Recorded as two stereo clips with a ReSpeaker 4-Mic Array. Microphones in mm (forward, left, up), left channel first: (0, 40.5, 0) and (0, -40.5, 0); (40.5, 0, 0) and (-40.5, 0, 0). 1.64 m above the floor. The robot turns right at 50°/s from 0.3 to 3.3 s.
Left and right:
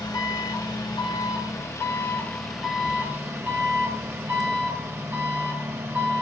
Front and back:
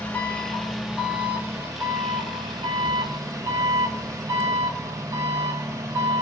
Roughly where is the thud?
Ahead.